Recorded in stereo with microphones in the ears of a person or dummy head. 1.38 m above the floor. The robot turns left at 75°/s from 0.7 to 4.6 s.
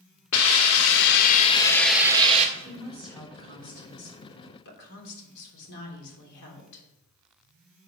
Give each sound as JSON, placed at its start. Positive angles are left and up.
{"t": 0.3, "sound": "a hiss", "azimuth_deg": 85, "distance_m": 1.7}
{"t": 2.6, "sound": "a woman speaking", "azimuth_deg": -145, "distance_m": 3.5}